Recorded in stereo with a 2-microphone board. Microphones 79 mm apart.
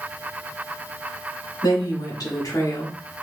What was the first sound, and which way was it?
A woman speaking, 55° left (ahead or behind).